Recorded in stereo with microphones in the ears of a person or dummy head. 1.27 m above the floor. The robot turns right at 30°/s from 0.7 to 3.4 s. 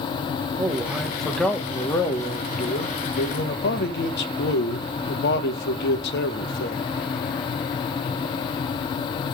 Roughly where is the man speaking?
Ahead.